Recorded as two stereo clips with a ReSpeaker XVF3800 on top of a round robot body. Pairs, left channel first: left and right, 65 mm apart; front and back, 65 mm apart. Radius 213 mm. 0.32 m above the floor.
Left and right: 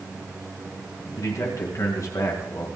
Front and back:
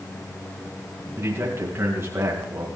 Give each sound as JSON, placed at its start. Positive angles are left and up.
{"t": 1.2, "sound": "a man speaking", "azimuth_deg": 125, "distance_m": 5.0}